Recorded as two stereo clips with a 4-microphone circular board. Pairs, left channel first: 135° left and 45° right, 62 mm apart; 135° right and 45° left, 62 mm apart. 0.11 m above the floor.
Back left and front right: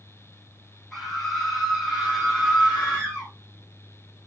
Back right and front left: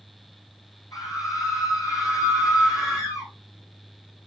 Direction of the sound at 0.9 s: 140° right.